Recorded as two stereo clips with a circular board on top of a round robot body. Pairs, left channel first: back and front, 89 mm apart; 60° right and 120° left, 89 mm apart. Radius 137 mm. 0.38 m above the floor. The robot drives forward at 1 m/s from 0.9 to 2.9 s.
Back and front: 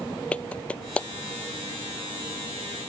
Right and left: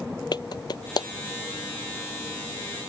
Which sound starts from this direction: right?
A clap, at 0.3 s.